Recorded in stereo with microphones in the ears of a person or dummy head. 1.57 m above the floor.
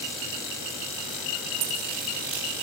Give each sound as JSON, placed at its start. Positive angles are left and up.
{"t": 1.6, "sound": "a dropped coin", "side_deg": -60, "distance_m": 3.5}